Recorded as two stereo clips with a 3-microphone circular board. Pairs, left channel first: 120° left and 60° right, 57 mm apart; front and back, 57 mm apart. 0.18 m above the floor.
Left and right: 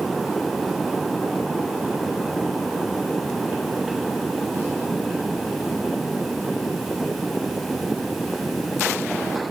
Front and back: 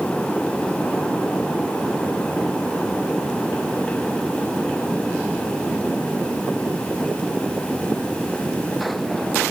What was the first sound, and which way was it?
Only background noise.